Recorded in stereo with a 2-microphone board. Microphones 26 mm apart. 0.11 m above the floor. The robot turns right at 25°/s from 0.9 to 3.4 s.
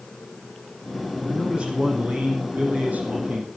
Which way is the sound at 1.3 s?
140° right.